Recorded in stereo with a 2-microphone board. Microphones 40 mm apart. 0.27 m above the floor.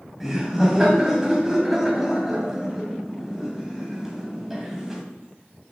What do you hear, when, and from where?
0.2 s laughter: 10° right (ahead or behind), 1.9 m